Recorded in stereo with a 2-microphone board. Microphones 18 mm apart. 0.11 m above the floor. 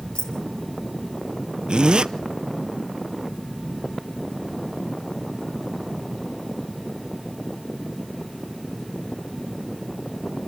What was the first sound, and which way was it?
Keys jangling, 75° left (ahead or behind).